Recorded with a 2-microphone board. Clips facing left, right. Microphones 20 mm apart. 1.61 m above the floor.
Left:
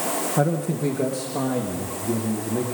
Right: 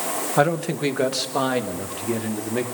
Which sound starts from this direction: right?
A man speaking, at 0.4 s.